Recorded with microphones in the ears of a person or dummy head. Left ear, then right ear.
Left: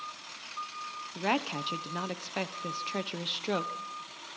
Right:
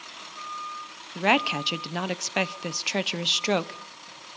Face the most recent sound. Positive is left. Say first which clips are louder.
# right 8 dB
turn(degrees=-25)  # may be behind; listen again after turning